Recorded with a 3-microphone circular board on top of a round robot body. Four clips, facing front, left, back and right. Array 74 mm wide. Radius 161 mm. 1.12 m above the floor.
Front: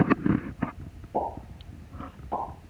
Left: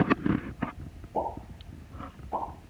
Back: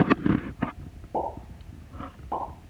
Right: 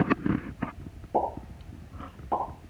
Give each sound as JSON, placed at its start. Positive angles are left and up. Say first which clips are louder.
{"t": 1.1, "sound": "a pop", "louder": "right 4 dB, even", "azimuth_deg": -110, "distance_m": 10.0}